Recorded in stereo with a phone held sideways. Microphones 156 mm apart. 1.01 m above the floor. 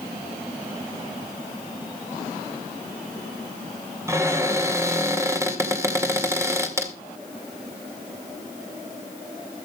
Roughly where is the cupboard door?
Centre.